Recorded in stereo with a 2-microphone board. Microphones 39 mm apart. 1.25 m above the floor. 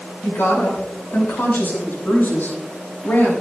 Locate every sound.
0.2 s a woman speaking: 80° left, 4.5 m; by 3.3 s 50° left (ahead or behind), 6.5 m